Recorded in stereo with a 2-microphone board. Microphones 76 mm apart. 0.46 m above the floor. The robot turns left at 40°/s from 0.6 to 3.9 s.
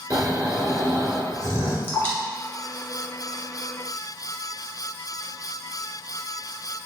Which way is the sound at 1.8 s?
20° left (ahead or behind).